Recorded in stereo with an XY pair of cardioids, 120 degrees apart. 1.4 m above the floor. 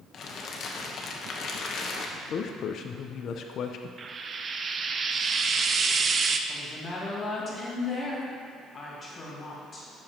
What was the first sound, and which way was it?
Crumpling, 50° left.